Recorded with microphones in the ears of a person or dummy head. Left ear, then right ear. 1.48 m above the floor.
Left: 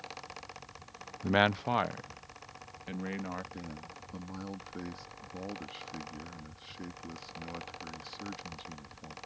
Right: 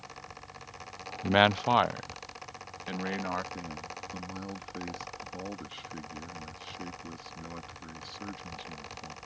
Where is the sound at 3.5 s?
5° right (ahead or behind).